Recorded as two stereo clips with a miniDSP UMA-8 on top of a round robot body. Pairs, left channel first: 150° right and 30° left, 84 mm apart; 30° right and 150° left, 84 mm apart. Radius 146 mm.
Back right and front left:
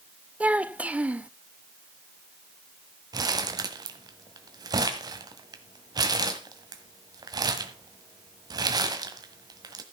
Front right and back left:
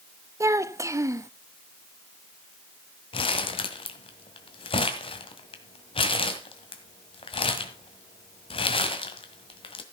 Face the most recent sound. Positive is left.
turn(degrees=-15)